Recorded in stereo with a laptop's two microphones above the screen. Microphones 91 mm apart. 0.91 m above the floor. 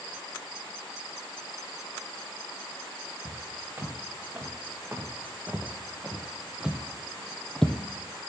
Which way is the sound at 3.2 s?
25° right (ahead or behind).